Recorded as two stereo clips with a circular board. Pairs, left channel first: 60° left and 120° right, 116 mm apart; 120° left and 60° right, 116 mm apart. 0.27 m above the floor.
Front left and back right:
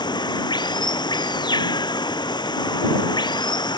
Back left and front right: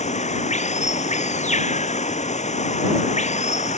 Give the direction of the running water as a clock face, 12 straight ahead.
8 o'clock.